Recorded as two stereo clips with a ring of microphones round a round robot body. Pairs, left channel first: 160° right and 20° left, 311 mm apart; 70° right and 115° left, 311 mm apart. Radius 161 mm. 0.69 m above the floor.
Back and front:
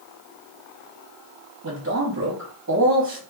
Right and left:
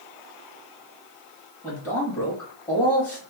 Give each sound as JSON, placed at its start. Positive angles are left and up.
{"t": 1.6, "sound": "a man speaking", "azimuth_deg": 10, "distance_m": 1.4}